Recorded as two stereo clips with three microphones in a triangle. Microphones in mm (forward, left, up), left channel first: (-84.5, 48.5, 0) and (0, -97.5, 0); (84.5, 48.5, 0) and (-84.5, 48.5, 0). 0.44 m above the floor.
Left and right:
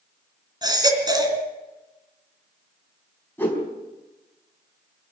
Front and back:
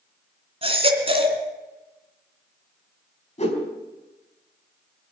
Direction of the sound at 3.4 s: 45° left.